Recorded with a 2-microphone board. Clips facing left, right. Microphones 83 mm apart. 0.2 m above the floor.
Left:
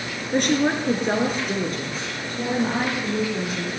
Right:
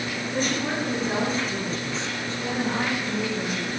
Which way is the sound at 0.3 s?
70° left (ahead or behind).